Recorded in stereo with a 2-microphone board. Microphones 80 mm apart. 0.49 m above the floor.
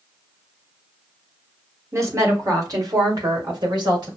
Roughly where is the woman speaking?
Right.